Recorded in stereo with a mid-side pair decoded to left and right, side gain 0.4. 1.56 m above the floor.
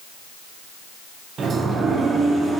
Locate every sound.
1.4 s a sliding door: 55° right, 0.6 m